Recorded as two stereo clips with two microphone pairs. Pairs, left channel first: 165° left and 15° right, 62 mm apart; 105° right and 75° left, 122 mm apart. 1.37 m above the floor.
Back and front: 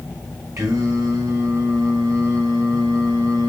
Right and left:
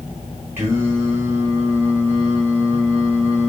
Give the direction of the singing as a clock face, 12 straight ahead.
12 o'clock.